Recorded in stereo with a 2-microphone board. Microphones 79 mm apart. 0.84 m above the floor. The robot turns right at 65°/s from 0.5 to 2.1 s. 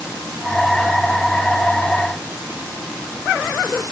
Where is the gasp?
I don't hear a gasp.